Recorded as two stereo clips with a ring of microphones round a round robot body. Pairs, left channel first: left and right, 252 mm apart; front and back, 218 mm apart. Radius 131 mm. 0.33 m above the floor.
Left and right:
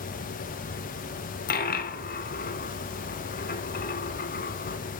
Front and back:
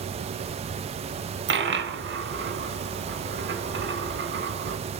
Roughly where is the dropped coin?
Behind left.